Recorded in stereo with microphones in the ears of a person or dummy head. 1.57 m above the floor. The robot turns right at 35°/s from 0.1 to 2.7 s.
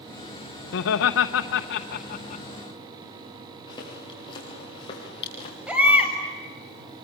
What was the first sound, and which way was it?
Laughter, 65° left (ahead or behind).